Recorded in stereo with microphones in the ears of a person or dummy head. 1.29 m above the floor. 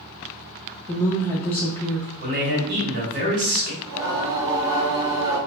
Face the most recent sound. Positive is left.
turn(degrees=-65)  # may be behind; listen again after turning